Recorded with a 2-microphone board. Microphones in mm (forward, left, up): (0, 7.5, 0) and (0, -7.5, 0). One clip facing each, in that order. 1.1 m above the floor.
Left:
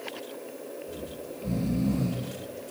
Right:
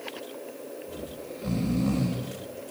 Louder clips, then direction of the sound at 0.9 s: Even; 65° right (ahead or behind).